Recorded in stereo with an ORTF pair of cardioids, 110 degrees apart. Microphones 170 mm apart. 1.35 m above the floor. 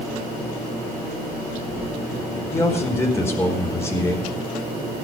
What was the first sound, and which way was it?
A man speaking, 15° left.